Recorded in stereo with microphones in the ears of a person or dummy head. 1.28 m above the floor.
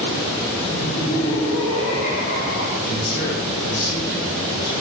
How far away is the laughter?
About 2 m.